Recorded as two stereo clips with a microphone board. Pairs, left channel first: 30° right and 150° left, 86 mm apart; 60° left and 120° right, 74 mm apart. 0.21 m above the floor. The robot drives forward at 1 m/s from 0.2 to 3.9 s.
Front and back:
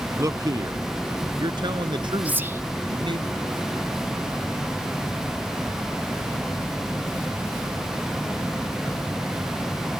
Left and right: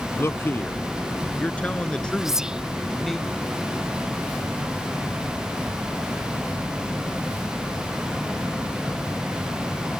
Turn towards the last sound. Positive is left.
turn(degrees=180)